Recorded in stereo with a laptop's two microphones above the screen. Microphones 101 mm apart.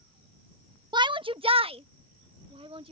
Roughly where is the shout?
Right.